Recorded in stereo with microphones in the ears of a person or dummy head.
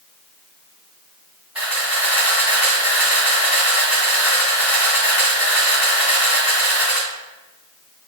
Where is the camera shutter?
15° right (ahead or behind), 2.5 m.